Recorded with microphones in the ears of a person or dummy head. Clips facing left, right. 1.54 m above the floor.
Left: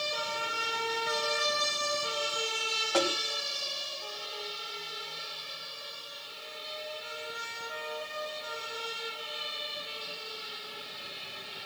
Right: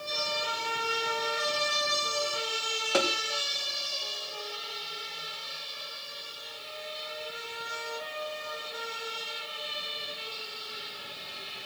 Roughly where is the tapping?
Right.